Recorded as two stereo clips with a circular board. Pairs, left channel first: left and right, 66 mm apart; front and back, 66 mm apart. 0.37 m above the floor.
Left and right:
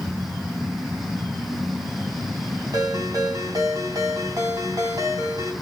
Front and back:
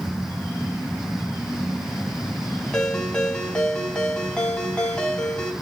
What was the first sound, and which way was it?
A ringtone, 75° right.